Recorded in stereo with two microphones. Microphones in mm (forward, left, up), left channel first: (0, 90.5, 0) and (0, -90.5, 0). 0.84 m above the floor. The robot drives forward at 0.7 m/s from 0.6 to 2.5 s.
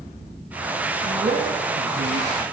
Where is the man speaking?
80° right, 5 m; by 2.4 s 85° right, 5 m.